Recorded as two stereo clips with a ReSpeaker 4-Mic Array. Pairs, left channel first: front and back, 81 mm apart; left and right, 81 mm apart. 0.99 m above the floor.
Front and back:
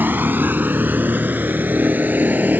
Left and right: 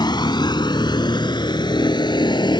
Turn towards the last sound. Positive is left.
turn(degrees=110)